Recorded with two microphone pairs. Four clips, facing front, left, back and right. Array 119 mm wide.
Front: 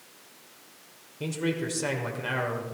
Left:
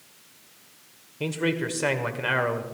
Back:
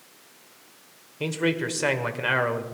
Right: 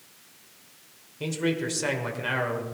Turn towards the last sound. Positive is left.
turn(degrees=155)